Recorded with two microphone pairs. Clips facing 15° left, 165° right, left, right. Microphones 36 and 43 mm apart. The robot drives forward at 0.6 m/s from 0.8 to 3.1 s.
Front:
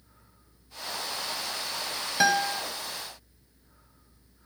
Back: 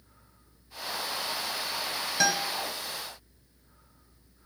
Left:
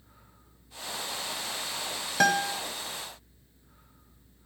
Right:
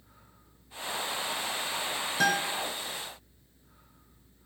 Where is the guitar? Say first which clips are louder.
Front 4 dB, left 3 dB; 90° left, 0.7 m; by 2.6 s 110° left, 0.7 m.